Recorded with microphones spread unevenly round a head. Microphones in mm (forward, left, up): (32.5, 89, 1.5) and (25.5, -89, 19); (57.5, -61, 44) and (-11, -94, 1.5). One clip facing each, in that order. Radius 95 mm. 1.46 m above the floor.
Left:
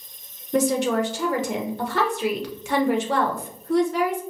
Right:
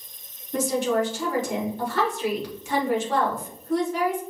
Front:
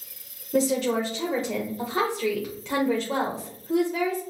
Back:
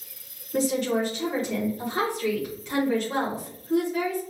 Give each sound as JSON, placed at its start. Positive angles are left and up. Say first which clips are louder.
{"t": 0.5, "sound": "a woman speaking", "louder": "left 2 dB, front 1 dB", "azimuth_deg": 60, "distance_m": 1.1}